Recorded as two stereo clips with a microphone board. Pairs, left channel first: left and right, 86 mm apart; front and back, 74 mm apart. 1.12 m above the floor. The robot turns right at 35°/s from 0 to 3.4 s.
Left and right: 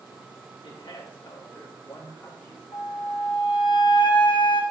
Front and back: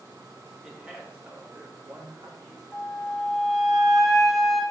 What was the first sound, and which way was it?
A man speaking, 100° left.